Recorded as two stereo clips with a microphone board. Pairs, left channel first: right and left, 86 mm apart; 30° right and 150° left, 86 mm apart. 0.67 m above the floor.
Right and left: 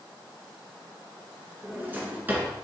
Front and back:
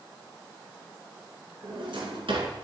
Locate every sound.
1.6 s a drawer: 160° left, 1.9 m